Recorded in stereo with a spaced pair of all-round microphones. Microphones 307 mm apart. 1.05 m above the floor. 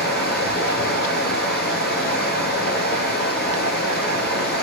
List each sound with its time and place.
0.0 s running water: 35° left (ahead or behind), 1.4 m